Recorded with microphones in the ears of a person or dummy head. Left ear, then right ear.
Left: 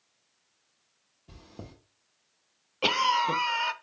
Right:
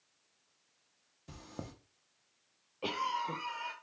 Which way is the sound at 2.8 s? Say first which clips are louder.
Left 11 dB; 55° left (ahead or behind).